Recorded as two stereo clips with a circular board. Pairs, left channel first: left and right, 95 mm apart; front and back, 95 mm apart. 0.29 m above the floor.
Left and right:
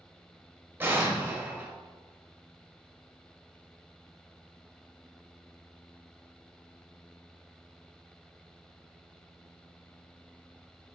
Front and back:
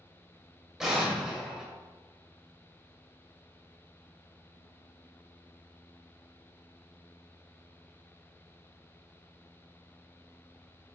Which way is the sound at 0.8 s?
105° right.